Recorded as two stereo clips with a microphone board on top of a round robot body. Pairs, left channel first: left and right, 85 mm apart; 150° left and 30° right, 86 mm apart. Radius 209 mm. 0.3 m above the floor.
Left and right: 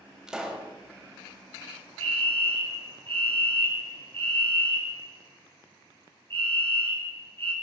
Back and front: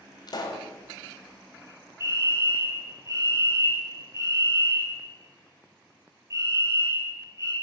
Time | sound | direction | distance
0.3 | a pop | 170° right | 3.5 m
2.0 | a fire alarm | 85° right | 5 m